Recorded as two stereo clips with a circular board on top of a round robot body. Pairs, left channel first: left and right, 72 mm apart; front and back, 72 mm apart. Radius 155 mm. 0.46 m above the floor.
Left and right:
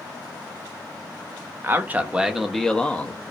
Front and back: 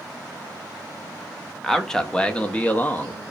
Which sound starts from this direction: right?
A man speaking, at 1.6 s.